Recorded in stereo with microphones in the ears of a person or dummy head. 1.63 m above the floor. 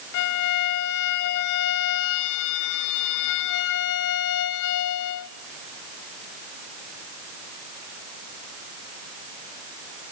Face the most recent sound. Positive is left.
turn(degrees=65)  # may be behind; listen again after turning